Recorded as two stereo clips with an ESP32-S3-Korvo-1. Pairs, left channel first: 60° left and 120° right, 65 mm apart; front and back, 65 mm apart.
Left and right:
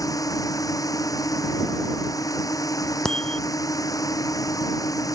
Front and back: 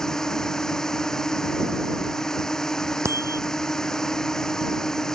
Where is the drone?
85° left.